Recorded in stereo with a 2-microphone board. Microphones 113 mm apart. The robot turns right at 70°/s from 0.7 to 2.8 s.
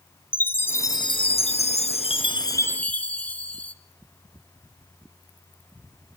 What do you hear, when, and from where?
0.3 s a chime: 20° left, 1.1 m; by 3.7 s 165° left, 1.1 m